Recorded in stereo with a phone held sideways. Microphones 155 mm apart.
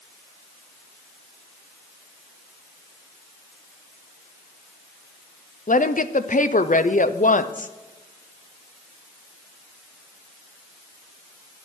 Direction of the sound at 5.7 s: 65° left (ahead or behind).